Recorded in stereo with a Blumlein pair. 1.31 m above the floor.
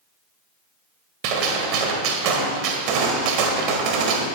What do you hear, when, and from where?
1.2 s a gunshot: 45° right, 1.6 m